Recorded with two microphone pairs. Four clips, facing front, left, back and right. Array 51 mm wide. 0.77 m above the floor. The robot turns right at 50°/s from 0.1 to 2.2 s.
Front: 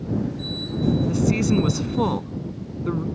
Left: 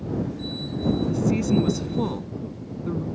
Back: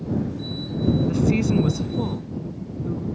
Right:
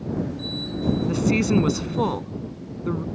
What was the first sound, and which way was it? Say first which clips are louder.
A woman speaking: right 4 dB, even; 95° right.